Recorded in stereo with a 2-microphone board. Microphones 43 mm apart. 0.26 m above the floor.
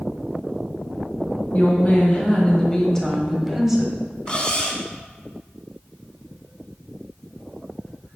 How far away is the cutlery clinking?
About 1.2 m.